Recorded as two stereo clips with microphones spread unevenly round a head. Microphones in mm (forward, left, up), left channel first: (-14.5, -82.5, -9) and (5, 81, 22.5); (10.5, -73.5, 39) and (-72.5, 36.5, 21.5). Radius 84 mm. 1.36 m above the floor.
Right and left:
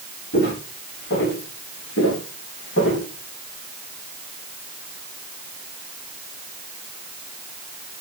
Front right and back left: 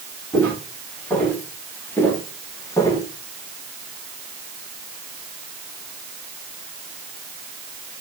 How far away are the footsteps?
About 7.5 m.